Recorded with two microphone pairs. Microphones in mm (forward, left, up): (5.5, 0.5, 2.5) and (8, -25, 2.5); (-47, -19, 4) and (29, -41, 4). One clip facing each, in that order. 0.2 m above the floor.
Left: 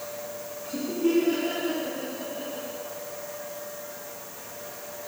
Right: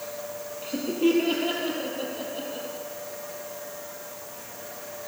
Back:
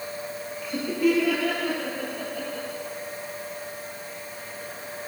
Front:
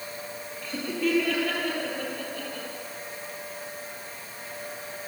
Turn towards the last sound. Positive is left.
turn(degrees=-115)